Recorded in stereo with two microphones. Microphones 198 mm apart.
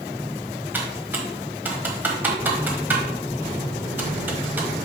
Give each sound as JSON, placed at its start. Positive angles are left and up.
{"t": 0.7, "sound": "typing on a keyboard", "side_deg": -10, "distance_m": 1.3}